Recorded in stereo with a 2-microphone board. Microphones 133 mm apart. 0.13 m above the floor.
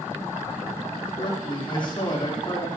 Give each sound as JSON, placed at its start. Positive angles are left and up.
{"t": 1.2, "sound": "a man speaking", "side_deg": 35, "distance_m": 5.5}